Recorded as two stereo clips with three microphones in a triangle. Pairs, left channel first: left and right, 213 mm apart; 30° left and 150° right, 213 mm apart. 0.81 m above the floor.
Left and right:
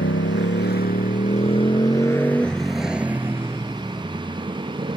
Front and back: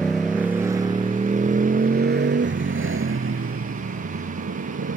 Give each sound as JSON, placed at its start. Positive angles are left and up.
{"t": 0.0, "sound": "a motorcycle", "azimuth_deg": 115}